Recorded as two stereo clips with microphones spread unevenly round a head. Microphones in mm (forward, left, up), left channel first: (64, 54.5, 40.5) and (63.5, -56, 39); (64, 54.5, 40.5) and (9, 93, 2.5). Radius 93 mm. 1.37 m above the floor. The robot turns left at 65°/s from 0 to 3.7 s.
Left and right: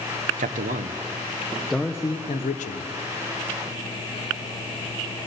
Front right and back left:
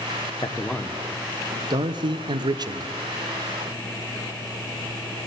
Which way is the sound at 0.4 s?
95° right.